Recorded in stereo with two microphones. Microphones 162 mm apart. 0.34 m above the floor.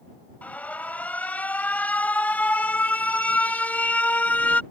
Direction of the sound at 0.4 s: 10° left (ahead or behind).